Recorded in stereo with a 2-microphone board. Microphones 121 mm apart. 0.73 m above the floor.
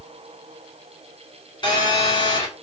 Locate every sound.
1.6 s a phone buzzing: 35° left (ahead or behind), 3 m